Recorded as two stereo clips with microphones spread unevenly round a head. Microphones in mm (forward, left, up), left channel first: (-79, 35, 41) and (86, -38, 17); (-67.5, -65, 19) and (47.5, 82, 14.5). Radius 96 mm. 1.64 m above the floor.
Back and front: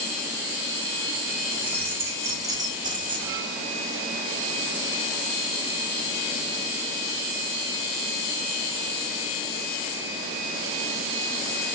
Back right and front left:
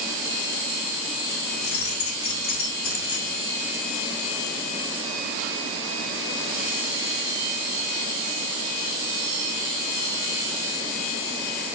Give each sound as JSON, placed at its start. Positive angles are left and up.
{"t": 1.5, "sound": "keys jangling", "azimuth_deg": -110, "distance_m": 2.5}